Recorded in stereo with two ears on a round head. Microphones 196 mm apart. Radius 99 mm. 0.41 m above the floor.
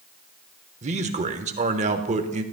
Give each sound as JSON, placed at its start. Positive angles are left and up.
{"t": 0.8, "sound": "a man speaking", "side_deg": -30, "distance_m": 0.9}